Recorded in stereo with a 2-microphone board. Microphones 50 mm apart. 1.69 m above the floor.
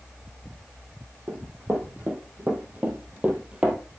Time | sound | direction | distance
1.3 | running footsteps | 40° right (ahead or behind) | 3.5 m